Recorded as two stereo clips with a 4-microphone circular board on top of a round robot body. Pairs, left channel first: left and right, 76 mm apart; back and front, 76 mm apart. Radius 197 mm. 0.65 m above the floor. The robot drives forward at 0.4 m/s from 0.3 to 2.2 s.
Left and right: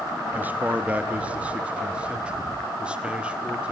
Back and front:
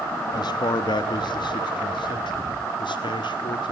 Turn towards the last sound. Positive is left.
turn(degrees=-165)